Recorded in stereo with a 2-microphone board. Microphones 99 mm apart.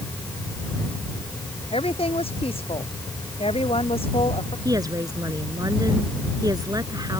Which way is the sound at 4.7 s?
40° right (ahead or behind).